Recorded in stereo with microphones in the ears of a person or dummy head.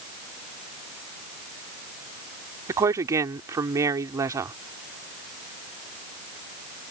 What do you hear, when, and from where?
2.7 s a woman speaking: 20° right (ahead or behind)